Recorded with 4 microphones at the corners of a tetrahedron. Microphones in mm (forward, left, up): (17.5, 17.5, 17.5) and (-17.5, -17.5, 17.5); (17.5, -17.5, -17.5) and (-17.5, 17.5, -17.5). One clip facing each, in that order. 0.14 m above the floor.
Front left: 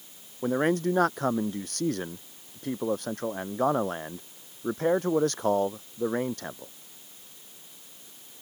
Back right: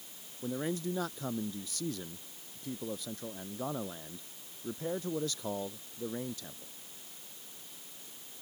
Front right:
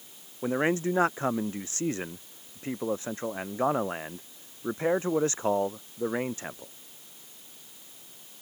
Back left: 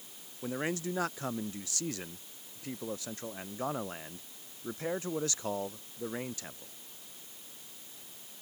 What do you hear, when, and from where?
0.4 s a man speaking: 10° left